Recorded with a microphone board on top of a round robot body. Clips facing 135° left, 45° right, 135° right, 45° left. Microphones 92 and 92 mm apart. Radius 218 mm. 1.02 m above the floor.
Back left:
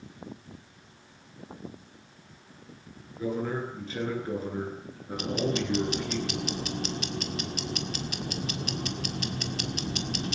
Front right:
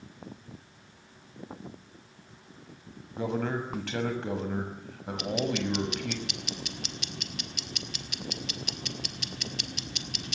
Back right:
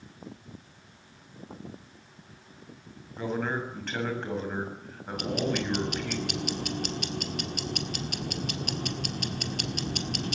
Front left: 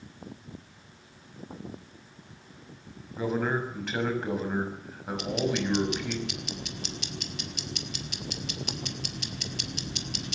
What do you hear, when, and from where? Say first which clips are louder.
3.1 s a man speaking: even, front left 2 dB; 40° right, 6.5 m
5.2 s ticking: back left 1 dB, even; 175° right, 1.7 m